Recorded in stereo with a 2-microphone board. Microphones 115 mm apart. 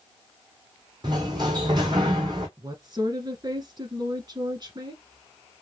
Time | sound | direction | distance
1.0 | a sliding door | 40° right (ahead or behind) | 1.2 m
2.6 | a woman speaking | 35° right (ahead or behind) | 1.4 m